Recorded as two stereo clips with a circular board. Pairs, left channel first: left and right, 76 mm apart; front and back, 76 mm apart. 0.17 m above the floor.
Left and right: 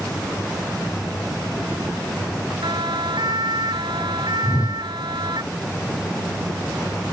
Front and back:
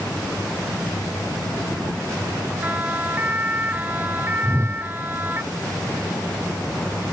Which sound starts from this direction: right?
A siren, at 2.6 s.